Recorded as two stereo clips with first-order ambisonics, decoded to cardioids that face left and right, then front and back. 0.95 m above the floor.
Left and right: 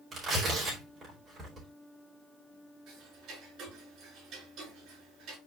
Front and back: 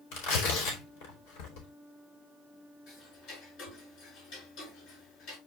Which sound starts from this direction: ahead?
Tearing paper, at 0.1 s.